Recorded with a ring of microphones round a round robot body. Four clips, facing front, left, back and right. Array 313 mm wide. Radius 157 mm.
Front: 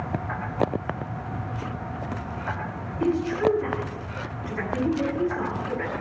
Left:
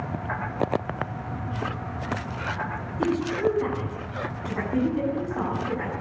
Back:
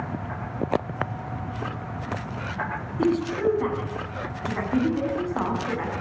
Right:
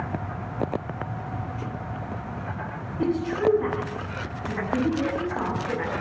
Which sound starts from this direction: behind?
A woman speaking, at 3.0 s.